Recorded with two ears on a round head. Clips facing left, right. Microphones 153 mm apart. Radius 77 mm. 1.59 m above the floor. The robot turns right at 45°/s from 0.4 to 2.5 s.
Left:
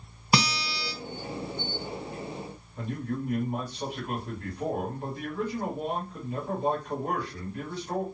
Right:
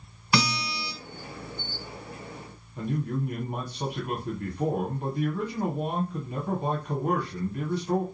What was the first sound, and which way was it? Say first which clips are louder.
A guitar: even; 20° left (ahead or behind).